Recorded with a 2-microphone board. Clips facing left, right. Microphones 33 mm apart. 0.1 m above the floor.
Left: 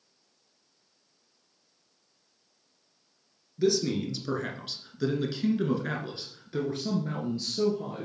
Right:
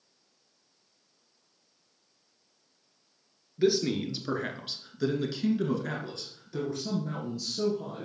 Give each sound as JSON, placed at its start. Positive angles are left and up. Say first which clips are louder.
{"t": 3.6, "sound": "a man speaking", "louder": "even", "side_deg": -25, "distance_m": 1.6}